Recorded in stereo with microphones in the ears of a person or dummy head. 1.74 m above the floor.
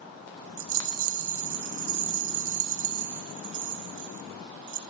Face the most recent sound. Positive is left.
turn(degrees=-45)  # may be behind; listen again after turning